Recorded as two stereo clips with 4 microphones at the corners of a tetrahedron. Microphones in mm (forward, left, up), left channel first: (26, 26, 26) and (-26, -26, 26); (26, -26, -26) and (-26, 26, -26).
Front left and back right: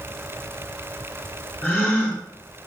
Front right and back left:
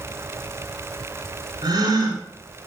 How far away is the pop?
I don't hear a pop.